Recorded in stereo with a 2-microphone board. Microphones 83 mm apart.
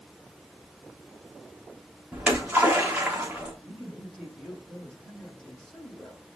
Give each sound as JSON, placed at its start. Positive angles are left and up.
{"t": 2.1, "sound": "a splash", "side_deg": -15, "distance_m": 4.0}
{"t": 3.6, "sound": "a man speaking", "side_deg": 5, "distance_m": 6.0}